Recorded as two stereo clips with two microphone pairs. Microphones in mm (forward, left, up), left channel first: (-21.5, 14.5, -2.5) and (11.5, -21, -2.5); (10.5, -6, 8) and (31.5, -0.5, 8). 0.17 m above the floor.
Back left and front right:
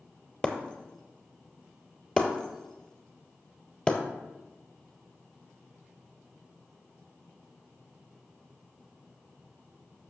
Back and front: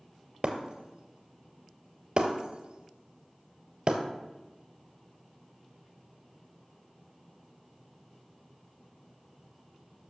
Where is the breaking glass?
65° left, 0.9 m.